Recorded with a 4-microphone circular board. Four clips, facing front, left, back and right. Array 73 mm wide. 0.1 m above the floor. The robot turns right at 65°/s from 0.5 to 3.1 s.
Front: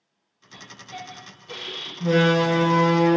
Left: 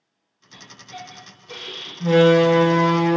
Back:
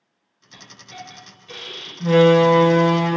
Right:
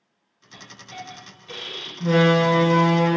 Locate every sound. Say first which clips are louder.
0.5 s a hiss: even, front 1 dB; 175° left, 1.4 m; by 1.9 s 100° right, 1.4 m
2.0 s a door slam: left 4 dB, back 6 dB; 135° left, 0.8 m; by 3.2 s 150° right, 0.8 m